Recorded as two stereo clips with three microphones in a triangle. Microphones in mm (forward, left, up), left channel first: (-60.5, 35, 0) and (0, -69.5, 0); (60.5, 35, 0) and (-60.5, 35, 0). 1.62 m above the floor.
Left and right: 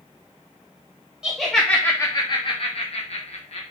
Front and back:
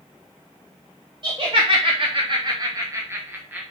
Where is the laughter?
145° right, 0.8 m; by 3.6 s 105° left, 1.1 m.